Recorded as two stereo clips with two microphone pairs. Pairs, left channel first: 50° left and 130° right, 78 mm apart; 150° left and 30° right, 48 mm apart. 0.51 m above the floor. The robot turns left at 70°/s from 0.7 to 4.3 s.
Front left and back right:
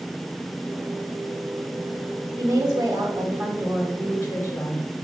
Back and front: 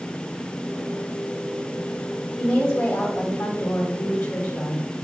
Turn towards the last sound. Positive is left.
turn(degrees=105)